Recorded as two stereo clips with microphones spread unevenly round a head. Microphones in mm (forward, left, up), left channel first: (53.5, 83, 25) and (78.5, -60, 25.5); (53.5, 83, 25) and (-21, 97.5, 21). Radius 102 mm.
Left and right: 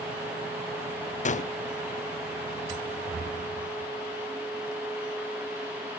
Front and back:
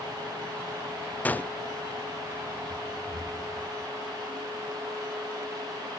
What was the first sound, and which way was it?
A gunshot, 60° left.